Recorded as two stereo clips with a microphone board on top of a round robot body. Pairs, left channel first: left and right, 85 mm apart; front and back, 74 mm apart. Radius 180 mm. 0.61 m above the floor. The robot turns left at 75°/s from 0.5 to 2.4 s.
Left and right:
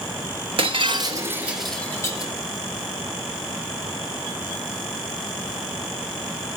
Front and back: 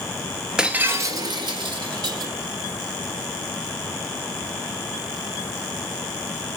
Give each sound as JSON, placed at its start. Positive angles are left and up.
{"t": 0.6, "sound": "breaking glass", "azimuth_deg": -100, "distance_m": 1.4}